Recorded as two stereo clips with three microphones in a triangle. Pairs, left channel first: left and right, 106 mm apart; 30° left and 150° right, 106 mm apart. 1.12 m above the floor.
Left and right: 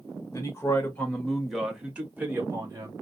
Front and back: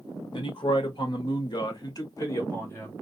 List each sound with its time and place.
0.3 s a man speaking: 40° left, 1.2 m; by 2.9 s 35° right, 1.4 m